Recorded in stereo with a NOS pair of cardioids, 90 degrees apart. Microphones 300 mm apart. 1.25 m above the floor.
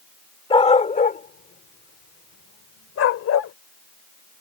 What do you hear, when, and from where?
0.5 s a dog barking: 20° left; by 3.5 s 60° left